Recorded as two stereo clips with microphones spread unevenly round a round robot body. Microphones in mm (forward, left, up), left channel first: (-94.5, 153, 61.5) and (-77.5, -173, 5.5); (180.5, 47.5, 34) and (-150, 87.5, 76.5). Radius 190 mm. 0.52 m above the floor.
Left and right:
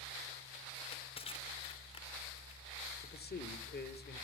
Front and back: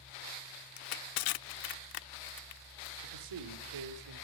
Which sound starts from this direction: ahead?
Crushing, at 0.8 s.